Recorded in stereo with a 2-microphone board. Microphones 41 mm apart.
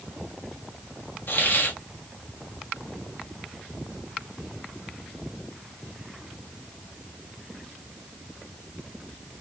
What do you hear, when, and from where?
1.3 s a hiss: 60° left (ahead or behind), 1.6 m